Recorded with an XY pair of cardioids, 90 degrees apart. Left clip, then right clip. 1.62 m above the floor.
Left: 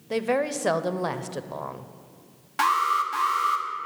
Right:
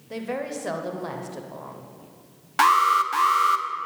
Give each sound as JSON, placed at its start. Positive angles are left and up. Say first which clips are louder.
{"t": 0.1, "sound": "a woman speaking", "louder": "left 6 dB", "azimuth_deg": 60, "distance_m": 0.7}
{"t": 2.6, "sound": "an alarm", "louder": "right 4 dB", "azimuth_deg": -40, "distance_m": 1.0}